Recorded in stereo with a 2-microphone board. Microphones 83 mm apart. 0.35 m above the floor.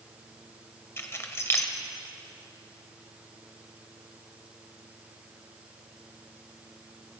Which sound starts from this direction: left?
Keys jangling, at 1.0 s.